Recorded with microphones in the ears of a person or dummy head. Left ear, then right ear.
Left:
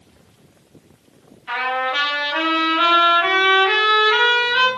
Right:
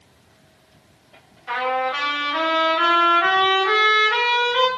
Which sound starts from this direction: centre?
A trumpet, at 1.5 s.